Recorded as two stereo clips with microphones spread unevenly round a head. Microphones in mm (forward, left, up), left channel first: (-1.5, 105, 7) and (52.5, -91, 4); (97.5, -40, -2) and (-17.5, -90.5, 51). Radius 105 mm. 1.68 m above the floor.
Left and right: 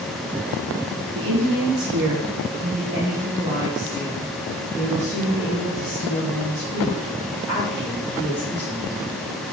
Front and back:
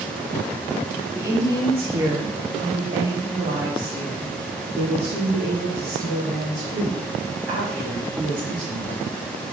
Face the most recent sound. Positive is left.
turn(degrees=-175)